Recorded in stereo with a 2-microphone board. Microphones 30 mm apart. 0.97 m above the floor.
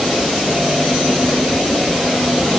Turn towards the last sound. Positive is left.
No sound to turn to.